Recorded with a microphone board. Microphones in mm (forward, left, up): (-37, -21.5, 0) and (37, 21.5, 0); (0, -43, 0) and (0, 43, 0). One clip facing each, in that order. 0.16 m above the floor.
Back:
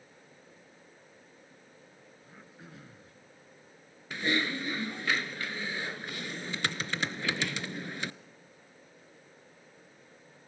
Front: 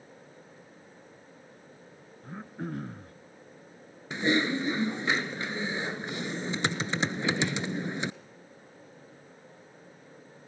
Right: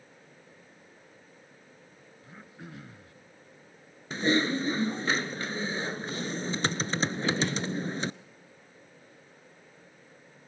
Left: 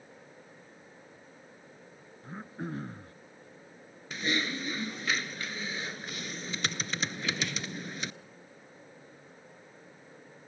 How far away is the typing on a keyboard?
About 0.7 m.